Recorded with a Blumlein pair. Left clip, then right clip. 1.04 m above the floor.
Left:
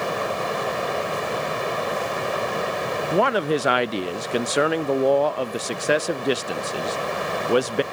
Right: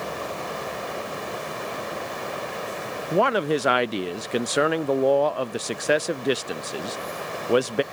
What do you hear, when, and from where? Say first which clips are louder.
0.0 s running water: left 6 dB; 70° left
3.1 s a man speaking: even; 5° left